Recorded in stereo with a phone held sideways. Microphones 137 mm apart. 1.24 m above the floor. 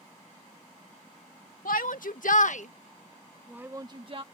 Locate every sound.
1.6 s a shout: 85° left; by 4.2 s 45° right (ahead or behind)